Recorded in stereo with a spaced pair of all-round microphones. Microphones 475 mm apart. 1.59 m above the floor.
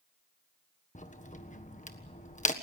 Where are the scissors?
I don't hear scissors.